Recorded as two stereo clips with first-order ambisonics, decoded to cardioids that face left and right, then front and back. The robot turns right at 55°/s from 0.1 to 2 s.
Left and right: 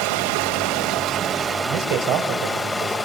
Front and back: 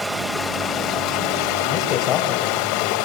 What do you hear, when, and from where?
0.0 s running water: 95° right, 1.9 m; by 3.1 s 5° left, 1.9 m
1.7 s a man speaking: 75° right, 4.5 m; by 3.0 s 55° right, 4.5 m